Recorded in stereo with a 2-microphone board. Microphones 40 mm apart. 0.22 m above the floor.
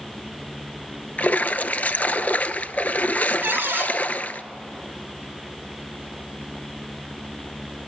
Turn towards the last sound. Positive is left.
turn(degrees=-70)  # may be behind; listen again after turning